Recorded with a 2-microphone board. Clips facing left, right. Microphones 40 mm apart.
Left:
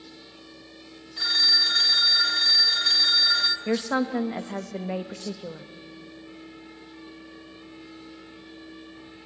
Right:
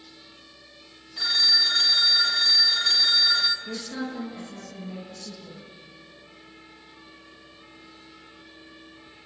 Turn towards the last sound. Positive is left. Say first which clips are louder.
# left 8 dB
turn(degrees=75)  # may be behind; listen again after turning